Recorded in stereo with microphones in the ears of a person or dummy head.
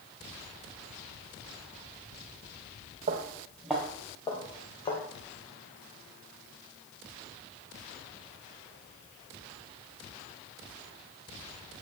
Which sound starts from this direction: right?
Footsteps, at 3.1 s.